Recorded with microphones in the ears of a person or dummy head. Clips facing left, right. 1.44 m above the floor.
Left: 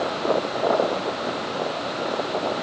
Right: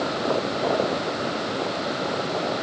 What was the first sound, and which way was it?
Only background noise.